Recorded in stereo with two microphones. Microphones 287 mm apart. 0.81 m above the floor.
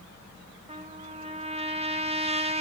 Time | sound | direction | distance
0.7 | a trumpet | 20° right (ahead or behind) | 0.6 m